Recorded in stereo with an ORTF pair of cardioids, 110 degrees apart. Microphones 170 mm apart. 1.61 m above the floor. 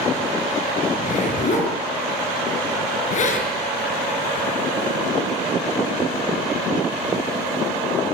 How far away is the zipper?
About 7 m.